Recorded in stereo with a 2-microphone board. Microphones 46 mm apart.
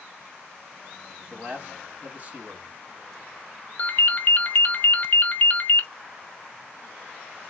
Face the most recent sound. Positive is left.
turn(degrees=45)  # may be behind; listen again after turning